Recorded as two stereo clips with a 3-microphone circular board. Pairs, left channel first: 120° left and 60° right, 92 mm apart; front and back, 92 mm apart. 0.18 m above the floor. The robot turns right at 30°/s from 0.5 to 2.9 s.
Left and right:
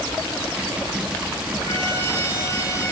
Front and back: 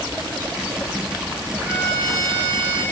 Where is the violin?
110° left, 5.5 m; by 2.8 s 145° left, 5.5 m.